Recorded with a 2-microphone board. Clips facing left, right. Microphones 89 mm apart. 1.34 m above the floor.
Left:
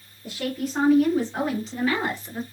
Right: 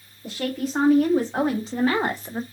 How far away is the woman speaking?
About 3 m.